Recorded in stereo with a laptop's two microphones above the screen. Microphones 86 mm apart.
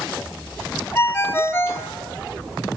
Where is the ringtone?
25° left (ahead or behind), 0.6 m.